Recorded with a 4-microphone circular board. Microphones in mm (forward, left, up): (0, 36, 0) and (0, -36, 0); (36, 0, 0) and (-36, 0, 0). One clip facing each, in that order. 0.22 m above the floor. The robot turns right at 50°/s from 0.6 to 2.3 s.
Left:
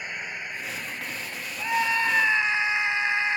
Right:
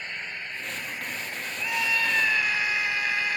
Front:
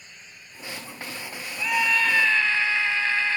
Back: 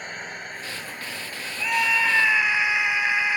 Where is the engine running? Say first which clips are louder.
Left 2 dB, back 14 dB; 165° left; by 3.4 s 110° right.